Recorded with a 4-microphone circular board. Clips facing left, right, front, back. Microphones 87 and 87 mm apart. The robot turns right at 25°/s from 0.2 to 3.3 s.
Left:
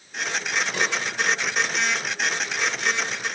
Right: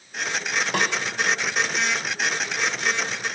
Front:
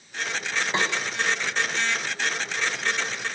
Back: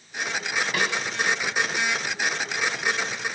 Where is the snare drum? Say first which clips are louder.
Right 3 dB, front 1 dB; 65° right, 3 m; by 0.9 s 55° right, 3 m.